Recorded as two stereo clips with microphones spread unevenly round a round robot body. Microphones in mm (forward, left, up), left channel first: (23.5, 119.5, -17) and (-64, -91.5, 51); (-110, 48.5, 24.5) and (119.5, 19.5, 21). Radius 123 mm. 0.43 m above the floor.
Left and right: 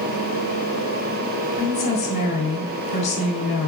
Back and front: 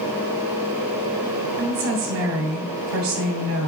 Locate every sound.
1.6 s a woman speaking: 10° left, 3 m